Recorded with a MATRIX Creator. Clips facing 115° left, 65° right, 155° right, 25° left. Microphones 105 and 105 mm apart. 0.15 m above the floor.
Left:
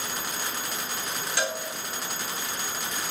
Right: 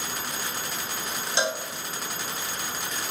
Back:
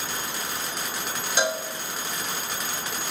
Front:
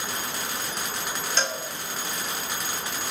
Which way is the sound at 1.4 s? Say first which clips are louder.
Right 3 dB, back 5 dB; 95° right.